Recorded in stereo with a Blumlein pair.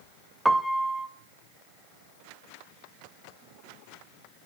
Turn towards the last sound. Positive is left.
turn(degrees=-5)